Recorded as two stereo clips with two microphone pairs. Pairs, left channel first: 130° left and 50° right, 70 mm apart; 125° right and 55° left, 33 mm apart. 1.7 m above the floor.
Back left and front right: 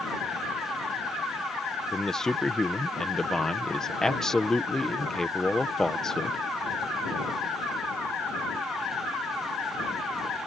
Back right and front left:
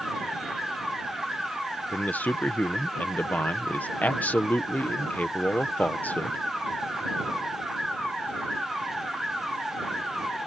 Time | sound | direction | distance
1.9 | a man speaking | 150° right | ?